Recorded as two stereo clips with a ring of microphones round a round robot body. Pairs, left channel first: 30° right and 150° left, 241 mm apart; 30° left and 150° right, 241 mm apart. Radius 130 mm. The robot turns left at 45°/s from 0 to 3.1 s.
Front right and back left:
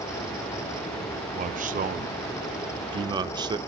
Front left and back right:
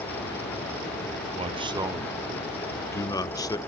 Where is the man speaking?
170° left, 0.9 m; by 3.6 s 90° left, 0.9 m.